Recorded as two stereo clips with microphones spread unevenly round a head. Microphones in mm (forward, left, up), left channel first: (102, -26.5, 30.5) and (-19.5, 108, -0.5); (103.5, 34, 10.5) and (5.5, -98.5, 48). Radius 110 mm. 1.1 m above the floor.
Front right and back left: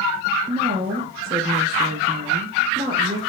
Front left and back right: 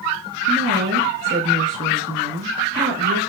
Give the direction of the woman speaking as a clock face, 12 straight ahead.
5 o'clock.